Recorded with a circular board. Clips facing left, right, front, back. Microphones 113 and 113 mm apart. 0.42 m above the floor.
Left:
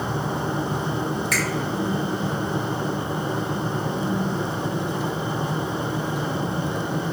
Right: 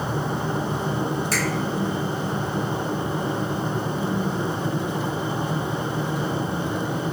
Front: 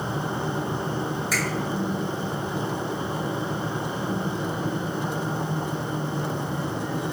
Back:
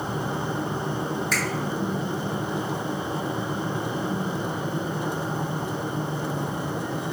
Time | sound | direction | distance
1.3 | a finger snap | 75° right | 1.3 m